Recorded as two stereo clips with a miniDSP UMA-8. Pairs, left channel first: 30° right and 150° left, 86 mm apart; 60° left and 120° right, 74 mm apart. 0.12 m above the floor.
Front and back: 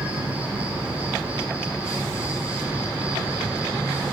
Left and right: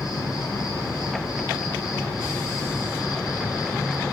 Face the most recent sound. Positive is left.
turn(degrees=80)